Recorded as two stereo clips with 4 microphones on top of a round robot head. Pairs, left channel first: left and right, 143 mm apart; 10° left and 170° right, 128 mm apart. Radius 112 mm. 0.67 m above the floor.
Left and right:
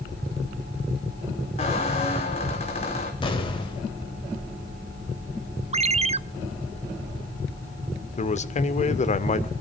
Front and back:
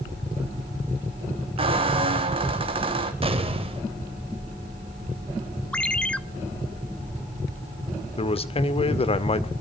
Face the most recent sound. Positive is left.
turn(degrees=55)